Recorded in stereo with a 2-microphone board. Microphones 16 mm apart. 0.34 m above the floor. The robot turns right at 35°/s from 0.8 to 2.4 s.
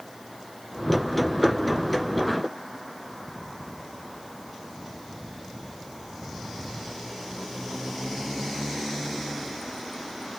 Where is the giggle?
I don't hear a giggle.